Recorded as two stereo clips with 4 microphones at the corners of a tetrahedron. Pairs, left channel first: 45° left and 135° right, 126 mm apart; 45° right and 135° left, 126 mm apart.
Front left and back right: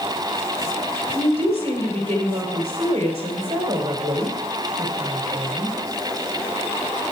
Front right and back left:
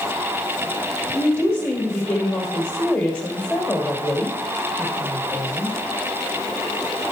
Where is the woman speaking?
110° right, 2.5 m.